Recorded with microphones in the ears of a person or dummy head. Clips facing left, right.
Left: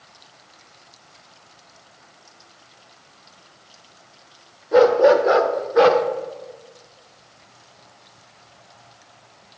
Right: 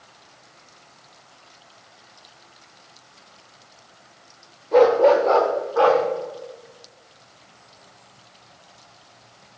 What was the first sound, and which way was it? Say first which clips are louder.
A dog barking: left 1 dB; 10° left (ahead or behind).